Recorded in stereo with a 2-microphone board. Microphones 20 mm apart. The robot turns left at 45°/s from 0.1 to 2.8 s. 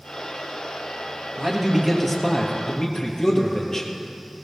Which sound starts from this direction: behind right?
A man speaking, at 1.4 s.